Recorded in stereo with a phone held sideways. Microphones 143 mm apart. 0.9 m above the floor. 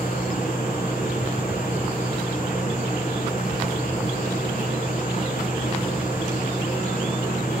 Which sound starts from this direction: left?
A machine running, at 0.0 s.